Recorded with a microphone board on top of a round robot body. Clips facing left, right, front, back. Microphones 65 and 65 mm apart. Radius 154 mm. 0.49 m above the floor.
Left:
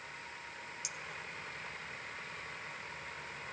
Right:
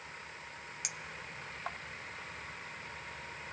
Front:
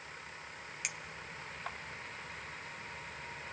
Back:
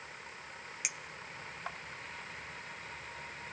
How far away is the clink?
About 1.1 m.